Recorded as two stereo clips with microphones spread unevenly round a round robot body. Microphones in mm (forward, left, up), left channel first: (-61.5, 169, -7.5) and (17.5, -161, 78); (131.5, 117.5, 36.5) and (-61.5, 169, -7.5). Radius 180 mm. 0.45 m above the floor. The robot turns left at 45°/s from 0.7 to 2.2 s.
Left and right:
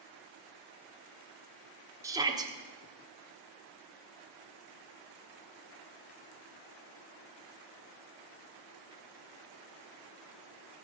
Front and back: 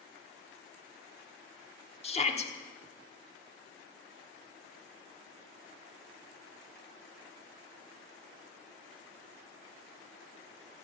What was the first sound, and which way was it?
A shout, 30° left.